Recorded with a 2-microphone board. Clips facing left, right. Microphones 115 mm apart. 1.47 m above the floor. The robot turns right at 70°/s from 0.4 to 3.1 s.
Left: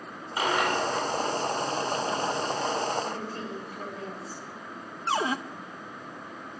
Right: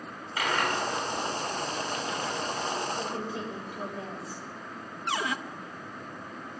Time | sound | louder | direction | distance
0.4 | a dropped coin | left 3 dB | 25° left (ahead or behind) | 3 m
3.0 | a woman speaking | even | 20° right (ahead or behind) | 6.5 m
5.1 | a cupboard door | left 4 dB | 30° left (ahead or behind) | 0.9 m